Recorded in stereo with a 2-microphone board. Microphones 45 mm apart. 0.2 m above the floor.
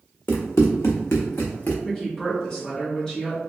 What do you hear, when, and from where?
0.3 s running footsteps: 60° left (ahead or behind), 0.7 m; by 1.8 s 45° left (ahead or behind), 0.8 m
1.9 s a woman speaking: 15° left (ahead or behind), 1.3 m